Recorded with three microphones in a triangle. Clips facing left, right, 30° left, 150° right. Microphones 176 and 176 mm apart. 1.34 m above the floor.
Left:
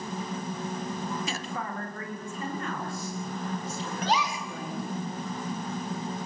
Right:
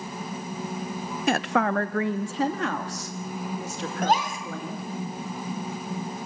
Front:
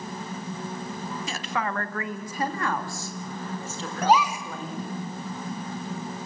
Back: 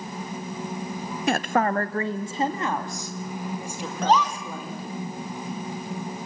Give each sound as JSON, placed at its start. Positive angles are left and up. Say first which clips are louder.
{"t": 1.3, "sound": "a woman speaking", "louder": "right 11 dB, back 10 dB", "azimuth_deg": -120, "distance_m": 0.8}
{"t": 4.0, "sound": "a gasp", "louder": "right 4 dB, even", "azimuth_deg": -50, "distance_m": 1.9}